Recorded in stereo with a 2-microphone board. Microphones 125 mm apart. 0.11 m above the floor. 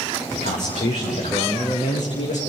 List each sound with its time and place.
0.3 s a man speaking: 75° left (ahead or behind), 8 m; by 2.4 s 80° left, 6.5 m